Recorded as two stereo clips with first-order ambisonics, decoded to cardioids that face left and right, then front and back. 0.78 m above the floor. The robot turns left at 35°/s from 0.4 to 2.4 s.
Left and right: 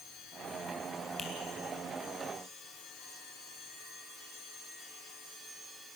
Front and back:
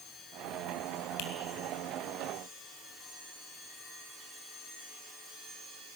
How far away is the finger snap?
About 3.5 m.